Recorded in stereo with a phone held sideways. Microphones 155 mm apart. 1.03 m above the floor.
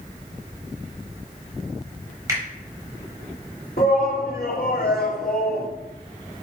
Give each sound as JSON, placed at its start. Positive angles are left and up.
{"t": 2.3, "sound": "a finger snap", "side_deg": -20, "distance_m": 4.5}
{"t": 3.8, "sound": "a shout", "side_deg": 80, "distance_m": 3.0}